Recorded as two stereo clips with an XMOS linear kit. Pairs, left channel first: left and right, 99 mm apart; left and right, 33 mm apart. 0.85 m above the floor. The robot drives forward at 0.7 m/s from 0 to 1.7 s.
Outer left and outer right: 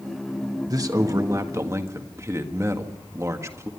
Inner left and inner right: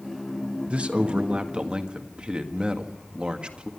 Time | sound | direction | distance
0.7 | a man speaking | 40° right (ahead or behind) | 1.3 m